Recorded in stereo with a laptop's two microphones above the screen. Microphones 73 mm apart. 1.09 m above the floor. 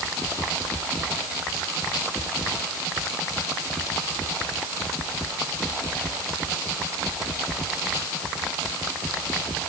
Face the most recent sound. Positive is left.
No sound to turn to.